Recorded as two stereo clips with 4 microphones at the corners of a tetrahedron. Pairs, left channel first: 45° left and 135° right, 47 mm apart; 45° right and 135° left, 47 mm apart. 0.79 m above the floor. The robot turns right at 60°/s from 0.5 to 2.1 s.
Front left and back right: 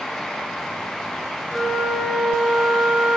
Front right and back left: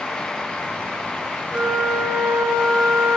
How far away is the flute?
About 1.1 m.